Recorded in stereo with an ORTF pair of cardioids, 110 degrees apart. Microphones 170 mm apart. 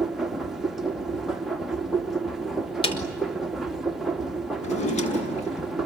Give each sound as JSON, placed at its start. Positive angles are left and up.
{"t": 0.0, "sound": "a machine running", "azimuth_deg": 0, "distance_m": 2.0}
{"t": 2.8, "sound": "a snare drum", "azimuth_deg": 30, "distance_m": 5.0}
{"t": 4.6, "sound": "a drawer", "azimuth_deg": 45, "distance_m": 6.0}